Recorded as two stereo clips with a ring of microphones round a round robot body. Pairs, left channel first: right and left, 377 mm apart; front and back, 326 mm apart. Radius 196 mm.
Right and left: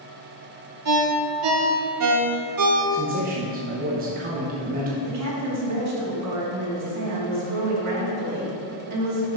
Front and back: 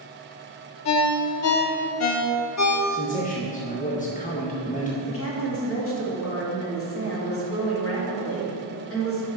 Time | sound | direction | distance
0.8 | a ringtone | 40° left | 0.8 m
2.9 | a man speaking | 45° left | 1.1 m
5.0 | a woman speaking | 45° left | 2 m